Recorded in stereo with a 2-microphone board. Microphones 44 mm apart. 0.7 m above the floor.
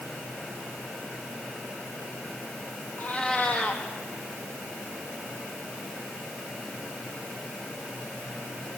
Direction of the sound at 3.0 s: 30° left (ahead or behind).